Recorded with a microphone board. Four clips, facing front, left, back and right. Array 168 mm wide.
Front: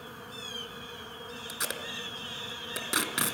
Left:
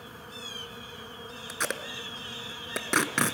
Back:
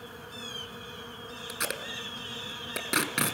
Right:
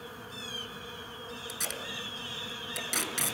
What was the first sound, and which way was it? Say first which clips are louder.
Tape being pulled: left 10 dB, back 3 dB; 105° left.